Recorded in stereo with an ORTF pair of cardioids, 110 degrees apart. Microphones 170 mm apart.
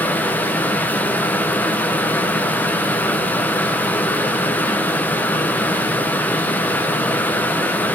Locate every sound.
0.0 s a fan: 10° left, 0.8 m